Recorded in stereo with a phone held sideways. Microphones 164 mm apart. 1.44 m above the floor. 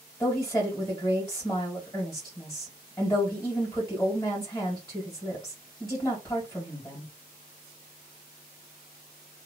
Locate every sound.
0.2 s a woman speaking: 10° left (ahead or behind), 2 m